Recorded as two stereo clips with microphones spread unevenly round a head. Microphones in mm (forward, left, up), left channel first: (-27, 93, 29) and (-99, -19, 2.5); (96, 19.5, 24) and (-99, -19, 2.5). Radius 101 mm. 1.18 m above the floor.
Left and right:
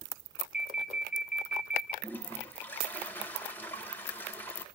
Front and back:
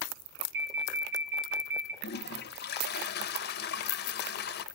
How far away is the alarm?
About 6.5 m.